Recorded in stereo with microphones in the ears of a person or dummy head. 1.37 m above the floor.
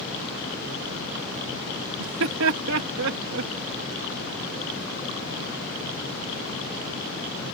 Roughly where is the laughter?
Right.